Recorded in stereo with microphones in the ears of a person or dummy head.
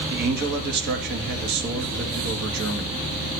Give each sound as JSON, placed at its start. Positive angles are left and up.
{"t": 0.1, "sound": "a man speaking", "side_deg": -60, "distance_m": 2.5}